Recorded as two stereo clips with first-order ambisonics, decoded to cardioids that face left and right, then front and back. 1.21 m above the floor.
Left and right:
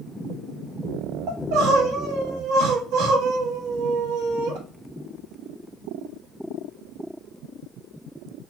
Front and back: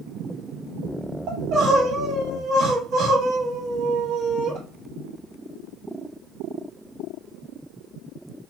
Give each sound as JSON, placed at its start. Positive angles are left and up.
{"t": 1.3, "sound": "crying", "azimuth_deg": -130, "distance_m": 1.1}